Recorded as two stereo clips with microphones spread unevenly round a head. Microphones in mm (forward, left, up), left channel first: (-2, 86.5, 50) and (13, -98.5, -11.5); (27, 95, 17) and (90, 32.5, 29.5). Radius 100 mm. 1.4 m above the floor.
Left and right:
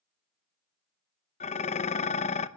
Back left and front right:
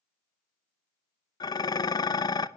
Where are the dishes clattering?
100° left, 0.7 m.